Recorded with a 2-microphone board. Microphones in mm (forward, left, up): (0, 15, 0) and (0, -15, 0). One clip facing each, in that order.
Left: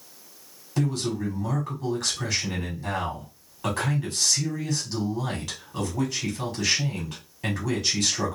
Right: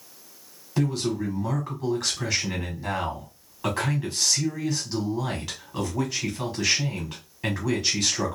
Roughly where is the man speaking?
Centre.